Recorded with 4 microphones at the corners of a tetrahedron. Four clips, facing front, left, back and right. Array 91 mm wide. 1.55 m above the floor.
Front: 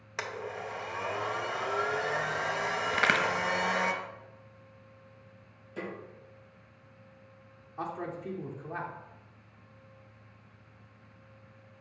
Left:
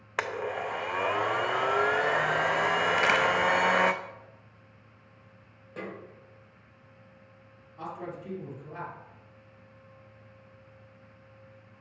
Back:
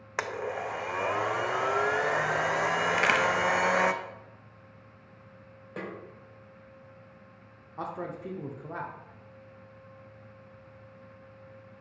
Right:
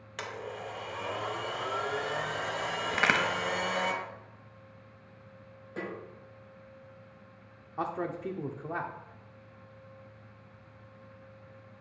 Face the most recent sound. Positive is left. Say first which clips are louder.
# right 5 dB, back 1 dB
turn(degrees=-105)